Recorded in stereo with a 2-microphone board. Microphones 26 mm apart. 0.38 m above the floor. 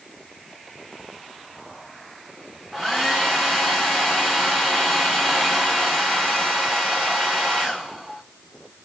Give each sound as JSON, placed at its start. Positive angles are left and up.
{"t": 2.7, "sound": "a hair dryer", "side_deg": -5, "distance_m": 7.0}